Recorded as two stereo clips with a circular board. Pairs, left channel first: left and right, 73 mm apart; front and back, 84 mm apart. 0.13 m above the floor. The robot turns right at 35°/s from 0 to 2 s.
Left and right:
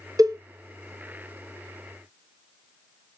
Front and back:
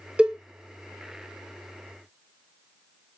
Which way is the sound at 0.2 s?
105° right.